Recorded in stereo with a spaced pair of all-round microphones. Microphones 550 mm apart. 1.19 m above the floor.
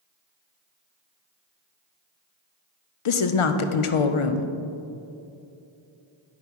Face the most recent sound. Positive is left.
turn(degrees=65)  # may be behind; listen again after turning